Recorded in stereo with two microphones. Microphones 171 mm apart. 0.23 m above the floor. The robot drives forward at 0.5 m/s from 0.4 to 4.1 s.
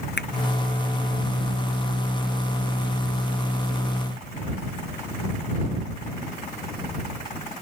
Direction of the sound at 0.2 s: 75° left (ahead or behind).